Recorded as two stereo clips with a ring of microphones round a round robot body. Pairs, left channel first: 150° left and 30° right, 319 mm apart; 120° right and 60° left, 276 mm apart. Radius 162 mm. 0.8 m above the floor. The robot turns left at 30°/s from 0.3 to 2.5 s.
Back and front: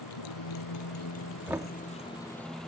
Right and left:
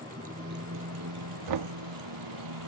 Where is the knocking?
55° left; by 1.7 s 45° left.